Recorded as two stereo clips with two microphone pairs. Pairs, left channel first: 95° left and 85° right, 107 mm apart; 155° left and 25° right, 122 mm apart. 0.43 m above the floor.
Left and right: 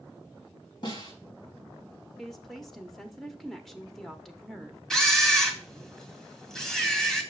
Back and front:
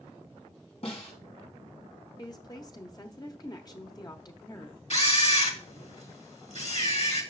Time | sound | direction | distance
0.8 | a snare drum | 125° left | 3.5 m
2.2 | a woman speaking | straight behind | 0.8 m
4.9 | a camera shutter | straight behind | 1.9 m